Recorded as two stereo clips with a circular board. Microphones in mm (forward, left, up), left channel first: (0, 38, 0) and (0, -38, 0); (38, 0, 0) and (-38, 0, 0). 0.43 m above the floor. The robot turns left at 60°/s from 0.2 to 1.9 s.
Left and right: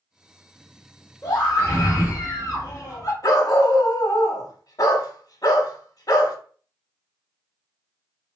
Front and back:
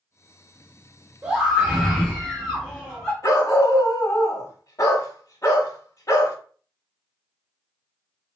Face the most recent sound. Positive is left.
turn(degrees=50)